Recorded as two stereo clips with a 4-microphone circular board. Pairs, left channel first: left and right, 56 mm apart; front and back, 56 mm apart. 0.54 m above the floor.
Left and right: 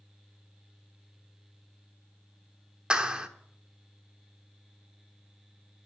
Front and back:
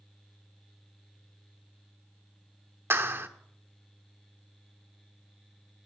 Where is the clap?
155° right, 1.2 m.